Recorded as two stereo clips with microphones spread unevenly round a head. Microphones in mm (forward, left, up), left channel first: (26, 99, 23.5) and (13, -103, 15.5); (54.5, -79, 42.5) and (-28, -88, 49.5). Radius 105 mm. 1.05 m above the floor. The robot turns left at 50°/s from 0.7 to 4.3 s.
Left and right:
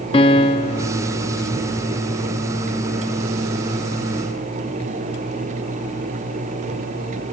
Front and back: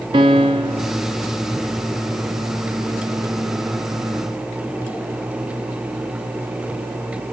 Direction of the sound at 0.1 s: 145° left.